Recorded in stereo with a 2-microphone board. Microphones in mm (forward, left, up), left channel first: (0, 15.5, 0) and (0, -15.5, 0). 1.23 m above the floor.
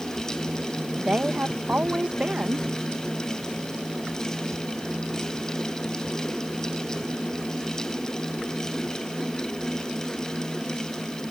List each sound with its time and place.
1.0 s a woman speaking: 35° right (ahead or behind)